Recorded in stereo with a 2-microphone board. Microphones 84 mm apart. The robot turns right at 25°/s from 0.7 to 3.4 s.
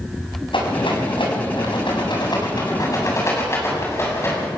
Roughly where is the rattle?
Left.